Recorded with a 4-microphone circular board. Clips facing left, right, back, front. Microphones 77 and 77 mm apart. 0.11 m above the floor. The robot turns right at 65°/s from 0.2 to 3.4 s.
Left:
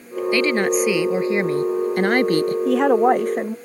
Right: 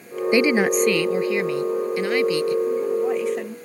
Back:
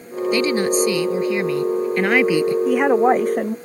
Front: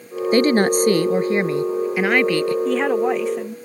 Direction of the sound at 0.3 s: 25° right.